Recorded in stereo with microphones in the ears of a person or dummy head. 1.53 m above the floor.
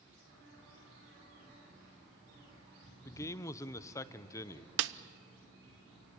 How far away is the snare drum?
About 0.6 m.